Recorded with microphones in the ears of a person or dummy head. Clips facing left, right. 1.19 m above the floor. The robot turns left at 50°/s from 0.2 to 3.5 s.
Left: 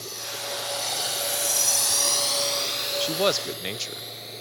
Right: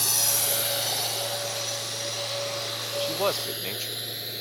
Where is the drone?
70° right (ahead or behind); by 4.4 s 15° right (ahead or behind).